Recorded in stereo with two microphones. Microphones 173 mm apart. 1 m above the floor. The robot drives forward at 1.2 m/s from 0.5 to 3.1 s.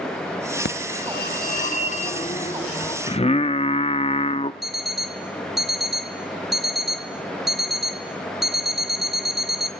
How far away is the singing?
About 0.7 m.